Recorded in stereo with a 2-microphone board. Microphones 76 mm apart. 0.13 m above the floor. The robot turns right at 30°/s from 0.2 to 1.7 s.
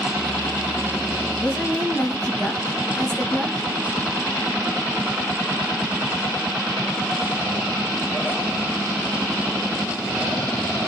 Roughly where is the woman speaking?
Centre.